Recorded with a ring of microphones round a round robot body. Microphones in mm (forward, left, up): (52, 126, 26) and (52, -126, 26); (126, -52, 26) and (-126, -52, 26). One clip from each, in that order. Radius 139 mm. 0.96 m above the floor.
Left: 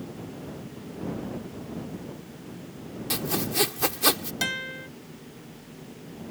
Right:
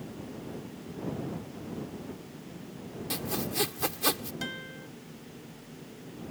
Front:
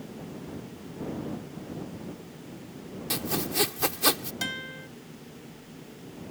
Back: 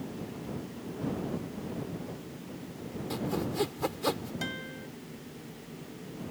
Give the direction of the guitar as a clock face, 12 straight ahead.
10 o'clock.